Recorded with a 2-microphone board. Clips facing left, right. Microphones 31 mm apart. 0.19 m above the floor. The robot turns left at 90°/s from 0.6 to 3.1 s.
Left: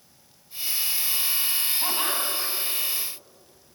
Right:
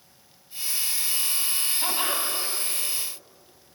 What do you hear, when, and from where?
1.8 s laughter: 5° left (ahead or behind), 1.3 m; by 2.5 s 20° left (ahead or behind), 1.3 m